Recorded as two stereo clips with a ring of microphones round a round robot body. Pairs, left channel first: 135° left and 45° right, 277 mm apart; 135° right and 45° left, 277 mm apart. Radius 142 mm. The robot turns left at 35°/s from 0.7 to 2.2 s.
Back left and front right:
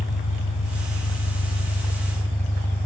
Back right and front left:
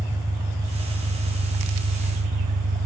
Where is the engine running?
110° left, 1.0 m; by 2.9 s 60° left, 1.0 m.